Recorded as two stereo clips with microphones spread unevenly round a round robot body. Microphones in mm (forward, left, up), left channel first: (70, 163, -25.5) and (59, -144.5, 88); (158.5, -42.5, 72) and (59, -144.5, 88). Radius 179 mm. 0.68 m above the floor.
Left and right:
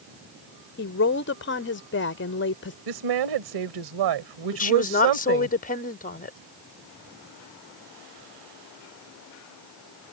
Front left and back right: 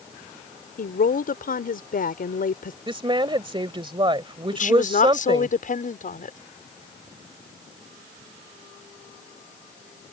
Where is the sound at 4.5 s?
35° left.